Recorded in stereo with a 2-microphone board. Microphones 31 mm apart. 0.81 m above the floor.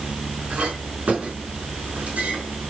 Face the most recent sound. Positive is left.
turn(degrees=-50)  # may be behind; listen again after turning